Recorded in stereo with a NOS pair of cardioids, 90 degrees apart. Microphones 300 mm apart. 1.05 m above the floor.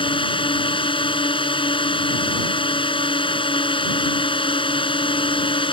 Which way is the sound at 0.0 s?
15° left.